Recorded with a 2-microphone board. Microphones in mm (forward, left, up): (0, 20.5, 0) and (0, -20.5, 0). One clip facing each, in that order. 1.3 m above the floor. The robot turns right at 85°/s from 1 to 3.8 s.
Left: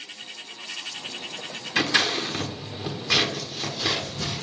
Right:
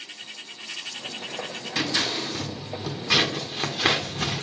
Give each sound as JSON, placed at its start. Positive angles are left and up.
{"t": 1.8, "sound": "scissors", "side_deg": 55, "distance_m": 1.5}